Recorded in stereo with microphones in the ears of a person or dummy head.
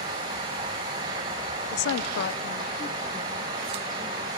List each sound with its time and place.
1.7 s a woman speaking: 65° left (ahead or behind), 1.0 m; by 4.4 s centre (ahead or behind), 3.5 m